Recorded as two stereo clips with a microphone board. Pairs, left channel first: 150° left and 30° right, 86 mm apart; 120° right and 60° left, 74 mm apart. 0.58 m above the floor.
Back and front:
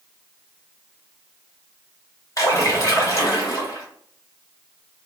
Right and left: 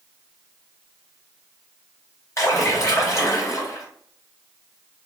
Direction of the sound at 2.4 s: 165° right.